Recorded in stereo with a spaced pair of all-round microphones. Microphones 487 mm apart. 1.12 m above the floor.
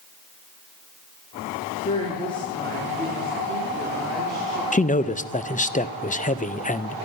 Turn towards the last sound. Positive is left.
turn(degrees=15)  # may be behind; listen again after turning